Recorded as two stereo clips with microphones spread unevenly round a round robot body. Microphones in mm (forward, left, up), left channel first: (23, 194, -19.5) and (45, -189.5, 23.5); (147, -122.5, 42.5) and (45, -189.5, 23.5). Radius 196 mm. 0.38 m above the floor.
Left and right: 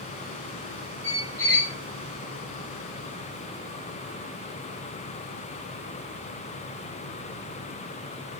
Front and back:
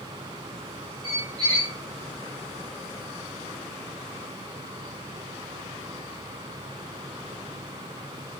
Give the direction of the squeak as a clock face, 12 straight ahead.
6 o'clock.